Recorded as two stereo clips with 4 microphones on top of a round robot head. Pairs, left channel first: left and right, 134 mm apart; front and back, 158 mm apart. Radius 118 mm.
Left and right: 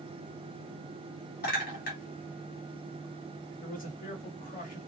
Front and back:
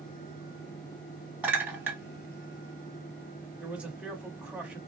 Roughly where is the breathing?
I don't hear breathing.